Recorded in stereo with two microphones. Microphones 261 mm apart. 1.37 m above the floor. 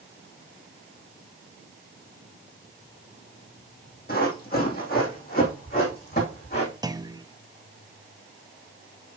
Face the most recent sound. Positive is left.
turn(degrees=-15)  # may be behind; listen again after turning